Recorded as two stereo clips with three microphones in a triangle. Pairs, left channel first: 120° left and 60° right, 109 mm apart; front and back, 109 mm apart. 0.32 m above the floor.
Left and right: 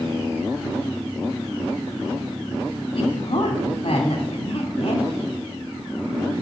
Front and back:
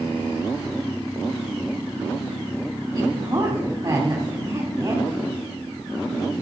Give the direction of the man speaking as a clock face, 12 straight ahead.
8 o'clock.